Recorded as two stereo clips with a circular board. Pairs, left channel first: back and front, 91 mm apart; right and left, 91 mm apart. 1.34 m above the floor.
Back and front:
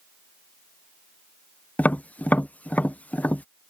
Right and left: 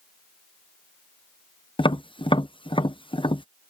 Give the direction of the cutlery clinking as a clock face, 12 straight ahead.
No cutlery clinking in this recording.